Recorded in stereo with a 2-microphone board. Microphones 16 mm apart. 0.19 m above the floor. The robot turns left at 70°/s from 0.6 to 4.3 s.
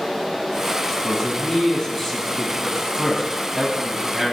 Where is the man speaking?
100° left, 1.1 m; by 4.3 s 140° right, 1.1 m.